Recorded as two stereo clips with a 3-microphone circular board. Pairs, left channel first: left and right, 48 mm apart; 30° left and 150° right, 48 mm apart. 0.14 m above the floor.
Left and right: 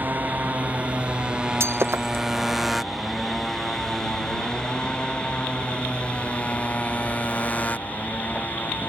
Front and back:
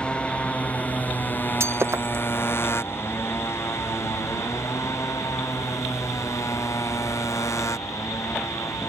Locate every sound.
0.0 s a motorcycle: 40° right; by 8.9 s 35° left
1.6 s breaking glass: 120° right